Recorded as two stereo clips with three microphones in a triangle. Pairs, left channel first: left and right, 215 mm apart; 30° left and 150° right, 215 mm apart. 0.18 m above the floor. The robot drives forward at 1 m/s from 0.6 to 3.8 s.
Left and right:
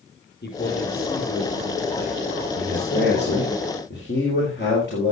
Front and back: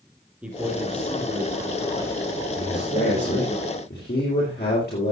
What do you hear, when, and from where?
0.4 s a man speaking: 125° left, 4 m; by 3.5 s 150° left, 6 m
2.5 s a man speaking: 50° left, 5 m; by 5.1 s 65° left, 4.5 m